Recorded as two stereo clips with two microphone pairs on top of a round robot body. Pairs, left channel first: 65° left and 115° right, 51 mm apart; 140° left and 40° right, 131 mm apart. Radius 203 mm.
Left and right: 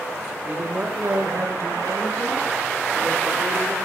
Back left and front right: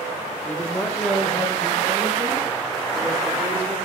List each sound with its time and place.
0.5 s a woman speaking: 155° right, 1.2 m; by 3.8 s 110° right, 2.5 m